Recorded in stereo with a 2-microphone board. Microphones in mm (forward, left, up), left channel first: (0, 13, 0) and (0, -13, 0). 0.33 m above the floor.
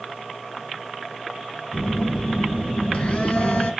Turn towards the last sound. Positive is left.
turn(degrees=60)  # may be behind; listen again after turning